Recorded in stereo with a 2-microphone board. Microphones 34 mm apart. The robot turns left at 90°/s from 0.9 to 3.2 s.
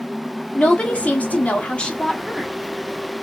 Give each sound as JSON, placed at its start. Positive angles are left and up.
{"t": 0.6, "sound": "a woman speaking", "azimuth_deg": 120, "distance_m": 1.1}